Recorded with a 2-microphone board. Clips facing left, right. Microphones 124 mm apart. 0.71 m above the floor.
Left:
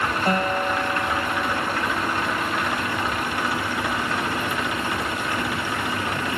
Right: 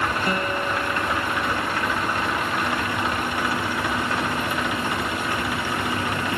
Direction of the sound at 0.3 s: 45° left (ahead or behind).